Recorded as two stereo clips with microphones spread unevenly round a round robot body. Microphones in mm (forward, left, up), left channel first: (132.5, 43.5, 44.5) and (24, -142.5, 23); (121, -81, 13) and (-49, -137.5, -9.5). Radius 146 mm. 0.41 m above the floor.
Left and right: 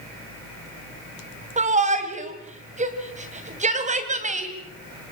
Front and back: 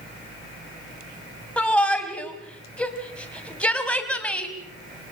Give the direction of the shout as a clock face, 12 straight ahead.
2 o'clock.